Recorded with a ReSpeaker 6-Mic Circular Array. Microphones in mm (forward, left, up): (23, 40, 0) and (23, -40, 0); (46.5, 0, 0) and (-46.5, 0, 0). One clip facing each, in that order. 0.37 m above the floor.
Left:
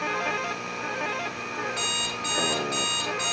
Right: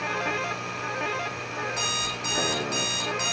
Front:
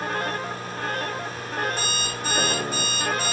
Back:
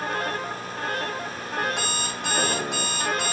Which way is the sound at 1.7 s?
160° right.